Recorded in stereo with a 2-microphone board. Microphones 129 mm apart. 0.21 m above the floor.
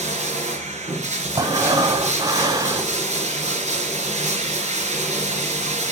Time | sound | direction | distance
0.0 | running water | 65° right (ahead or behind) | 3 m
1.4 | breathing | 30° right (ahead or behind) | 1.1 m